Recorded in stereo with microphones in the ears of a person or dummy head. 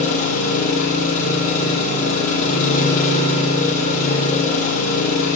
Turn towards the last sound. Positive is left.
turn(degrees=40)  # may be behind; listen again after turning